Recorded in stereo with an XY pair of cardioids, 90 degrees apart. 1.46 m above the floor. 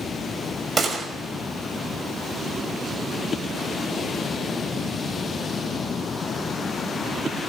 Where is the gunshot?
45° right, 6 m.